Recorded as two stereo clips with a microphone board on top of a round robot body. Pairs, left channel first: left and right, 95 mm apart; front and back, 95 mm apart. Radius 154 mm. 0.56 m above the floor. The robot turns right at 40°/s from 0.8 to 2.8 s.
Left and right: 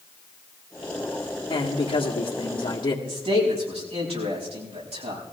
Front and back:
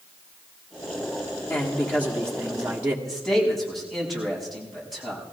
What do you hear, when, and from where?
1.5 s a man speaking: 55° left, 1.9 m; by 3.0 s 110° left, 1.9 m
3.0 s a man speaking: 85° right, 6 m